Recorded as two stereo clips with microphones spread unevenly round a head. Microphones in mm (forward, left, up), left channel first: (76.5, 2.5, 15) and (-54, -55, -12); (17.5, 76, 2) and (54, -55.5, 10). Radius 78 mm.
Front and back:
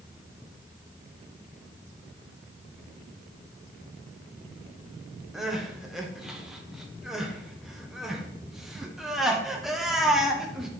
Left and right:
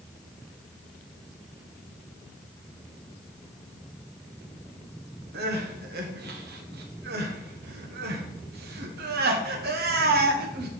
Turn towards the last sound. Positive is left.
turn(degrees=-65)